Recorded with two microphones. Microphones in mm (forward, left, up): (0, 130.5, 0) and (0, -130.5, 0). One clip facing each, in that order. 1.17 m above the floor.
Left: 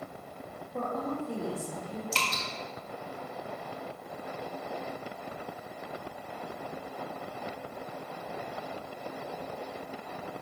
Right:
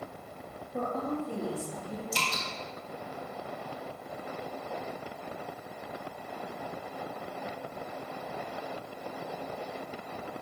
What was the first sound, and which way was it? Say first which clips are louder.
A woman speaking: right 1 dB; 5° right (ahead or behind).